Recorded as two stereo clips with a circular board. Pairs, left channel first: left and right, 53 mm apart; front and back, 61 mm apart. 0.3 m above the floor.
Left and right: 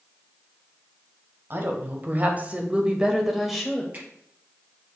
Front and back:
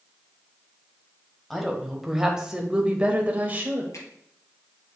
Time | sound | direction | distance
1.5 | a woman speaking | 85° right | 2.0 m
3.9 | a finger snap | 35° right | 5 m